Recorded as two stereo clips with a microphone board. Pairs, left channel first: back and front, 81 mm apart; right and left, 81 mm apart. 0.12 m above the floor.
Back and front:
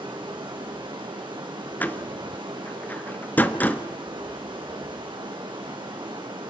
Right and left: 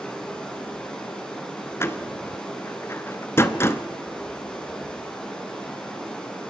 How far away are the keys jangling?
I don't hear keys jangling.